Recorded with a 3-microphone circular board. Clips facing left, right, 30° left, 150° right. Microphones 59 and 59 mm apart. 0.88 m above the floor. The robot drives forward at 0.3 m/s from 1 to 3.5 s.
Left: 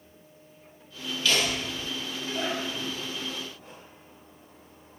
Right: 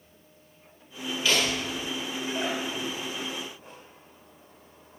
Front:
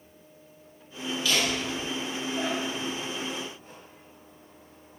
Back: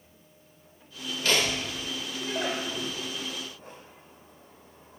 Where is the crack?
No crack in this recording.